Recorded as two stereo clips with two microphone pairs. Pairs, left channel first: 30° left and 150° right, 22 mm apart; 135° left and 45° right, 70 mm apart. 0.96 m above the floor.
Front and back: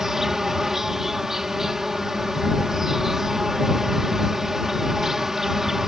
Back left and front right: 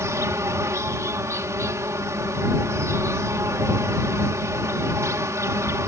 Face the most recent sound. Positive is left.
turn(degrees=-80)